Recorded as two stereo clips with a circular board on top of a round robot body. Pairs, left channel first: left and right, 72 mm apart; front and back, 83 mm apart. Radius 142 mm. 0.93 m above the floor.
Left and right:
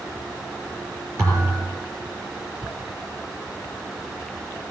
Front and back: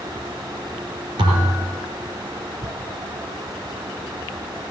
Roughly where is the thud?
Behind right.